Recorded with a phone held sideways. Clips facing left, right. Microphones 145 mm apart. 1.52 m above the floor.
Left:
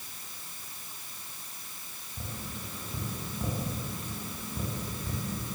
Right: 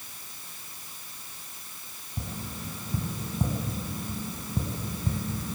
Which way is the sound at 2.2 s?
40° right (ahead or behind).